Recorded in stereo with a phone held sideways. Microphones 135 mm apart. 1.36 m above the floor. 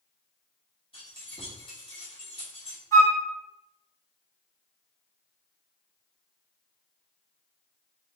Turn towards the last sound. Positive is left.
turn(degrees=25)  # may be behind; listen again after turning